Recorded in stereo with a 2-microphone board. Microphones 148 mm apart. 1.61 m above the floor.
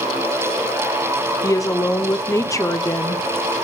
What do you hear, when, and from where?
1.4 s a woman speaking: 20° left (ahead or behind), 0.7 m